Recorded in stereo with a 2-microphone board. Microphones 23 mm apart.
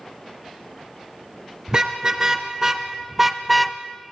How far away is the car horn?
About 3 m.